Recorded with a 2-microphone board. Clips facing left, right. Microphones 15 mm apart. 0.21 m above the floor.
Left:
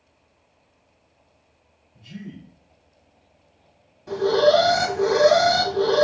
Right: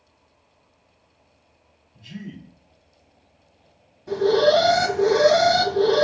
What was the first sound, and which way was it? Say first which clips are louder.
A man speaking: right 1 dB; 30° right (ahead or behind).